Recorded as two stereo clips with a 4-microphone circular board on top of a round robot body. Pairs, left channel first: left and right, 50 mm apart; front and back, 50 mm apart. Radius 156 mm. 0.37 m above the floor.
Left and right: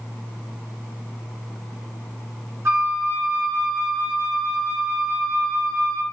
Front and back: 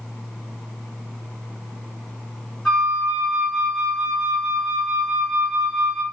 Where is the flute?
80° right, 1.9 m.